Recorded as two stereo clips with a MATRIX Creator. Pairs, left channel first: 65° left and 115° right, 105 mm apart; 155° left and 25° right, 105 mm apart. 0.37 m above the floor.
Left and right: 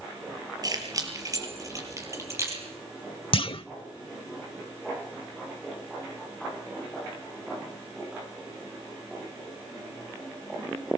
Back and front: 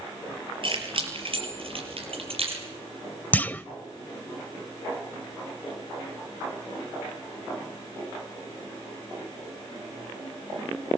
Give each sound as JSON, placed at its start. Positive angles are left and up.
{"t": 0.6, "sound": "keys jangling", "azimuth_deg": -60, "distance_m": 6.0}
{"t": 3.3, "sound": "a clunk", "azimuth_deg": 85, "distance_m": 0.7}